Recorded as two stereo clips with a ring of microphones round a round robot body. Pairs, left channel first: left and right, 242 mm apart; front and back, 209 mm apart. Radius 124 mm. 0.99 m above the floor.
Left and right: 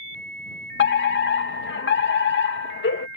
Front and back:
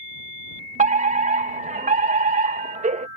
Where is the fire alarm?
130° left.